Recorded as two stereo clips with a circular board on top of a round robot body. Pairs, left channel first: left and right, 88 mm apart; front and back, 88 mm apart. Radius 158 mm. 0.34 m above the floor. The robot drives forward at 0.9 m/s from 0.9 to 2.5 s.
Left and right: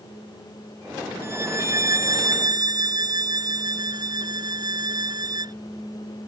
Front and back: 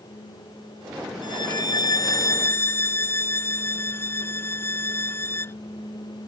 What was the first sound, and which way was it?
A violin, 30° right.